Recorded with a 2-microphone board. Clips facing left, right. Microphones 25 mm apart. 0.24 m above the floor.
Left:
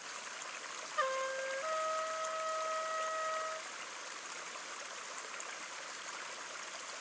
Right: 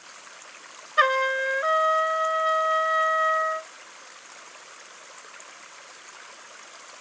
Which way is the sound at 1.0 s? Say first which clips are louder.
Right 15 dB; 60° right (ahead or behind).